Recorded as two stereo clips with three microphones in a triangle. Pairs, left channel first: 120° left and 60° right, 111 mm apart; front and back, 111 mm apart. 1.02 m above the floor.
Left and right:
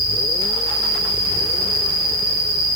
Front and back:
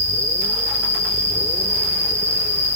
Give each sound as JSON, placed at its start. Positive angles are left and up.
{"t": 0.0, "sound": "an insect", "azimuth_deg": 25, "distance_m": 3.0}